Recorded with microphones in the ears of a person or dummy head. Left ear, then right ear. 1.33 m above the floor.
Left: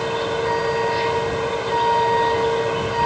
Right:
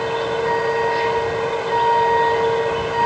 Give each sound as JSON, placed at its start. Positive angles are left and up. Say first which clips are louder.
{"t": 0.0, "sound": "a vehicle", "louder": "right 1 dB", "side_deg": -10}